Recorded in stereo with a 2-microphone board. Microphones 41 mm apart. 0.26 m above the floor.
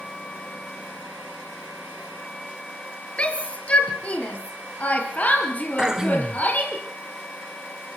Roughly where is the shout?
Left.